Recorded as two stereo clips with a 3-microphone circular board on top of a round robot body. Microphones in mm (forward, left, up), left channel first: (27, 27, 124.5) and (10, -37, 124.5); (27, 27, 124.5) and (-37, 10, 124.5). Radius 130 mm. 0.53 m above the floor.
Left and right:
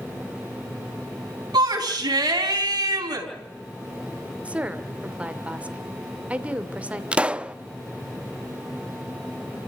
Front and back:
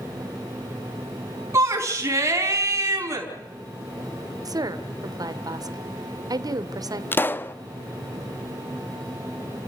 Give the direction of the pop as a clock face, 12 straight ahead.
1 o'clock.